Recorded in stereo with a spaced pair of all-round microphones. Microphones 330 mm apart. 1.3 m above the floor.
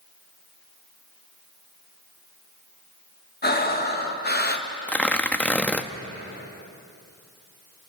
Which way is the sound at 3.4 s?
30° left (ahead or behind).